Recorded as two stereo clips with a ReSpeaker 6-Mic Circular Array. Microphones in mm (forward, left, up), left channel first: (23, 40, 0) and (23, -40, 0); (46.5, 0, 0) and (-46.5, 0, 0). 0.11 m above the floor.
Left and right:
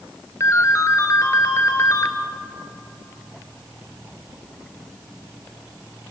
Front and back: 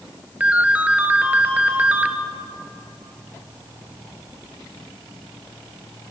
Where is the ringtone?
115° left, 1.5 m.